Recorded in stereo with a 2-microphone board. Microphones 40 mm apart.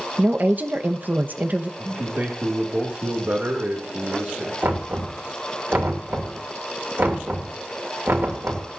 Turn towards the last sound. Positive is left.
turn(degrees=-65)  # may be behind; listen again after turning